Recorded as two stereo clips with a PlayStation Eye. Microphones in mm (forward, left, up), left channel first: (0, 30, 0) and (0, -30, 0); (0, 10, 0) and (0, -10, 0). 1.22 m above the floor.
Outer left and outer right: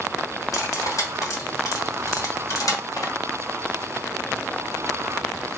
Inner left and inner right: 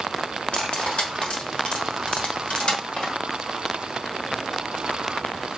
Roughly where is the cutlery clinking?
Left.